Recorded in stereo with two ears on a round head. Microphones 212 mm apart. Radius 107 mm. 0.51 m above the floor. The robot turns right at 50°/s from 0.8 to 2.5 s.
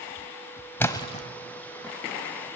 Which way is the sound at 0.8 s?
10° left (ahead or behind).